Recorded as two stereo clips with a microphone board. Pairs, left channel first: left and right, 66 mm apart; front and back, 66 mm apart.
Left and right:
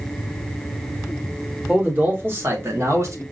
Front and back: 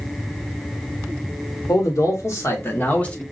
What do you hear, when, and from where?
1.7 s a man speaking: 25° right, 1.5 m; by 3.2 s 75° right, 1.0 m